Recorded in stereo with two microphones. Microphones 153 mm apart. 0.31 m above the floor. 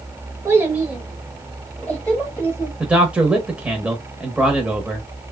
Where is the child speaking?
20° right (ahead or behind), 1.0 m; by 2.7 s 20° left (ahead or behind), 1.6 m.